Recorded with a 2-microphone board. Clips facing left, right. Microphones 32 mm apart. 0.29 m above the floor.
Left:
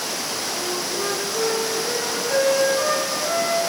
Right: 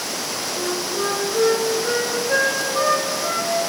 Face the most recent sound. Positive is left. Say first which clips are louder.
# right 4 dB
turn(degrees=-35)  # may be behind; listen again after turning